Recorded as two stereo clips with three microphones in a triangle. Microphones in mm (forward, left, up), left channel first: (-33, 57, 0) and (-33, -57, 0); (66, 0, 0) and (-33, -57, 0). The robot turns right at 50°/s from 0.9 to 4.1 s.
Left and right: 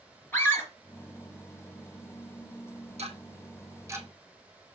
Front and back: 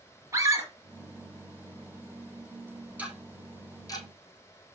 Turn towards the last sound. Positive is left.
turn(degrees=-15)